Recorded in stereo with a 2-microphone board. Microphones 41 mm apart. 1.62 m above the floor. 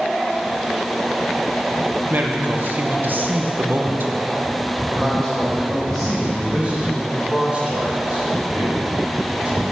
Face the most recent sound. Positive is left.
turn(degrees=-30)  # may be behind; listen again after turning